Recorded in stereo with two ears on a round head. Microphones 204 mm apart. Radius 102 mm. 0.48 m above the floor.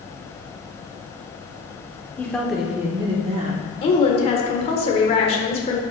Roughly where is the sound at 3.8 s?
Left.